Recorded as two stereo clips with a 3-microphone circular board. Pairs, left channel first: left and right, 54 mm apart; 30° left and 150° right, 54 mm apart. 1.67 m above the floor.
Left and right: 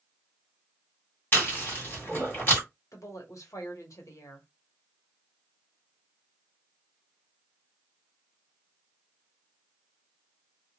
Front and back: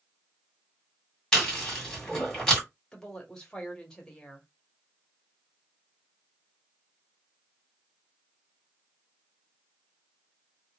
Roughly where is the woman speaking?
Left.